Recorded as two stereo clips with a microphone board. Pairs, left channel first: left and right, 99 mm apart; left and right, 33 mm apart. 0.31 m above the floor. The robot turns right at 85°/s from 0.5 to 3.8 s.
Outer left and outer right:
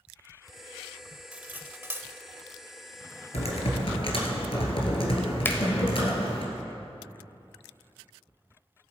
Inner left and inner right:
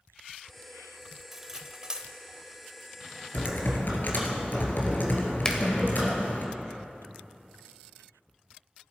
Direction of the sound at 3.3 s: 80° left.